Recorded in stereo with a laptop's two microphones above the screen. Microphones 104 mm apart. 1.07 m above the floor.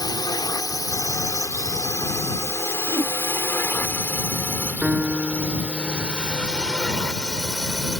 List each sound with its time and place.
0.0 s a drone: 40° left (ahead or behind); by 8.0 s centre (ahead or behind)
2.9 s a whoosh: 45° right (ahead or behind)
4.8 s a piano: centre (ahead or behind)